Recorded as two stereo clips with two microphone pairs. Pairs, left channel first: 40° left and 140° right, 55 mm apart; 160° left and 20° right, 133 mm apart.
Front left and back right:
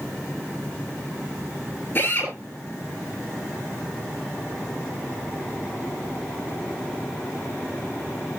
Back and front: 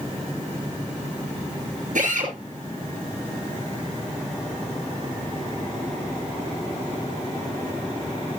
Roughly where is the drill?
Ahead.